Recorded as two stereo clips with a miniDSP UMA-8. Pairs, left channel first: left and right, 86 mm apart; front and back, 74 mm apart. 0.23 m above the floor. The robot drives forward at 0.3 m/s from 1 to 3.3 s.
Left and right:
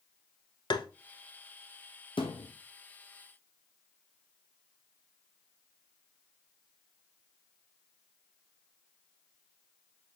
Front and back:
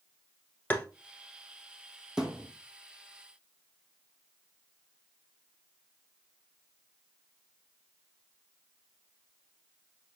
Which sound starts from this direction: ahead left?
Tapping, at 0.7 s.